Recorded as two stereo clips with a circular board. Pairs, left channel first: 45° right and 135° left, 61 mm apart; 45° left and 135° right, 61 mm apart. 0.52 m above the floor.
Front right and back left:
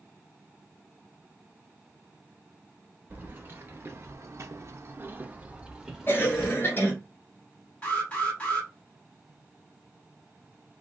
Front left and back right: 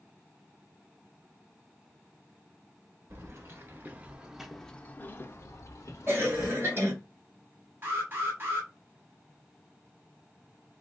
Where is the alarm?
105° right, 1.9 m.